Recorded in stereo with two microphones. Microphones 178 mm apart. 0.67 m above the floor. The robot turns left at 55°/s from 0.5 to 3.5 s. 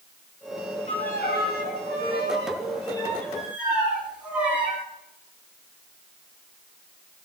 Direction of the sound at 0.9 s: 140° left.